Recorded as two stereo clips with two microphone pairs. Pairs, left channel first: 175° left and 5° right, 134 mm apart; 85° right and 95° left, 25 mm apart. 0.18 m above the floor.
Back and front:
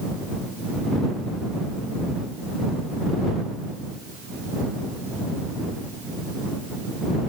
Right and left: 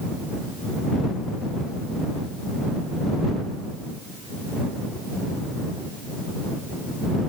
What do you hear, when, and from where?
Only background noise.